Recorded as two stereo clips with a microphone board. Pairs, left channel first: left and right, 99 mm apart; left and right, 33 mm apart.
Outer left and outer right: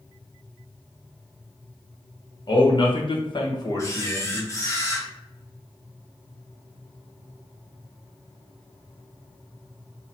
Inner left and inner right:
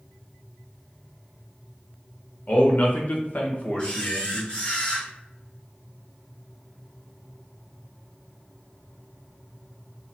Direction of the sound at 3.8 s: 30° left (ahead or behind).